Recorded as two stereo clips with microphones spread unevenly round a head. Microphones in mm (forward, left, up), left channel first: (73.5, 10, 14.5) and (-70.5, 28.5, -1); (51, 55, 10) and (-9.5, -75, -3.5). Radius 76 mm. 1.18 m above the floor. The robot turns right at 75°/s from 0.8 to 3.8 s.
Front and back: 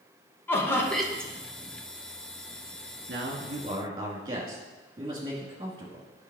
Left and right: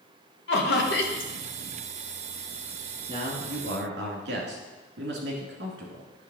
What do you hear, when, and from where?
0.5 s laughter: 70° left, 1.3 m; by 1.3 s 110° left, 1.3 m
3.1 s a man speaking: 170° right, 2.0 m; by 6.3 s 120° right, 2.0 m